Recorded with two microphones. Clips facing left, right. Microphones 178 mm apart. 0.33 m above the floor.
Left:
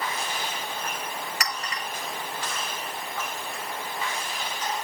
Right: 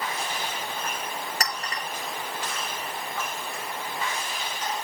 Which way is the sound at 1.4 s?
40° right (ahead or behind).